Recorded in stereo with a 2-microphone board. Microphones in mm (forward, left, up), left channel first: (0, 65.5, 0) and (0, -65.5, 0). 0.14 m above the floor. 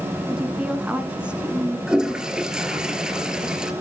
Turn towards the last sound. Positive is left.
turn(degrees=-5)  # may be behind; listen again after turning